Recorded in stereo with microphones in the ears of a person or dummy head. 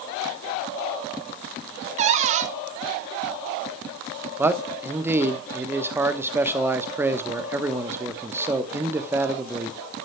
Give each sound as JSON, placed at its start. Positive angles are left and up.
{"t": 2.0, "sound": "a cupboard door", "side_deg": -45, "distance_m": 1.0}
{"t": 4.4, "sound": "a man speaking", "side_deg": -10, "distance_m": 1.1}